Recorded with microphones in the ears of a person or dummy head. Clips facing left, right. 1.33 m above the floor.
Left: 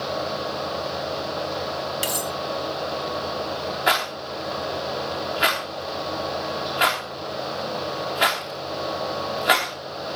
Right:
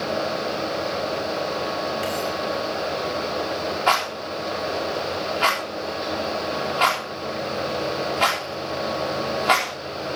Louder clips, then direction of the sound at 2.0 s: Right 3 dB; 60° left (ahead or behind).